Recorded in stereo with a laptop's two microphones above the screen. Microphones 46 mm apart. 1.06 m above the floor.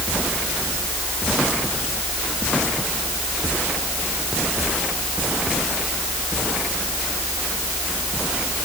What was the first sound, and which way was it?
Only background noise.